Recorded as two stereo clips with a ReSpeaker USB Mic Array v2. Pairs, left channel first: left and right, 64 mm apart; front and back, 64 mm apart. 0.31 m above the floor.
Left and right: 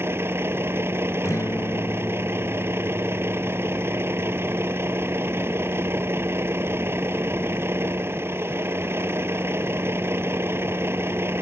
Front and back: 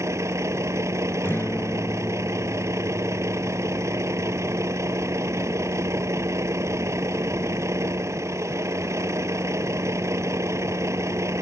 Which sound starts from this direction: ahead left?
A guitar, at 1.2 s.